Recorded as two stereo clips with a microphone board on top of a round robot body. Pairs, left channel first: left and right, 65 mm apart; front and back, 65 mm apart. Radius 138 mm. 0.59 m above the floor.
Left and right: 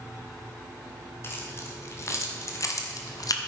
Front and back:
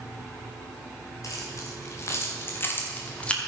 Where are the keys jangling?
40° left, 2 m; by 3.4 s 75° left, 1.2 m.